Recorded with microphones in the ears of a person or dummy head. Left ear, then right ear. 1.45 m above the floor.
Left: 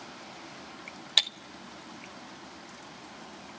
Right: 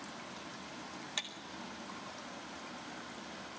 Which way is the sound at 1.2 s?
45° left (ahead or behind).